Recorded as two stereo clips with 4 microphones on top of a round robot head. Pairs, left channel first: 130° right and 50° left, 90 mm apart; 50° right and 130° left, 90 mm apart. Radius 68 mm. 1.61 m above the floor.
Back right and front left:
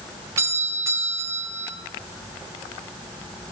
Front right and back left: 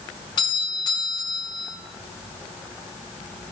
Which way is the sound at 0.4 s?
10° right.